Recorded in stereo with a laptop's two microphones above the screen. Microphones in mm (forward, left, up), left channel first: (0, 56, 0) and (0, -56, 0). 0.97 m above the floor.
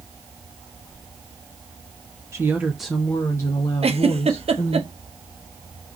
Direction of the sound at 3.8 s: 65° right (ahead or behind).